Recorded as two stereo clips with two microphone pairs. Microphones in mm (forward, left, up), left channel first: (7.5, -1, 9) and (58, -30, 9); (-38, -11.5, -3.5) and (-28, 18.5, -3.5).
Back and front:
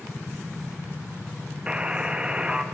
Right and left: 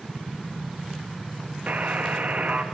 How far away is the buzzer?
About 0.6 m.